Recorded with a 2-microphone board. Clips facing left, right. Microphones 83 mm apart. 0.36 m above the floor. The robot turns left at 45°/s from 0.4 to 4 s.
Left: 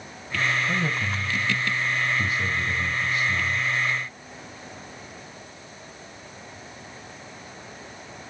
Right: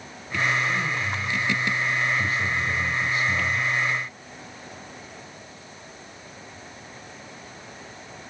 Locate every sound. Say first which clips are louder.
0.7 s a man speaking: even; 90° left, 2 m; by 3.7 s 45° right, 2 m